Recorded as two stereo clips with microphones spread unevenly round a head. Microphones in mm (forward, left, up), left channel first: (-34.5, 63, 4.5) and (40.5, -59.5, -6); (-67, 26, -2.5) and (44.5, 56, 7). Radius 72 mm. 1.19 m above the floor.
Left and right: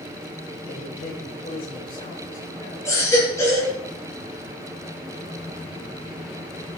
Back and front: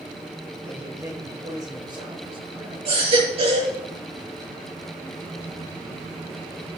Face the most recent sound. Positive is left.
turn(degrees=50)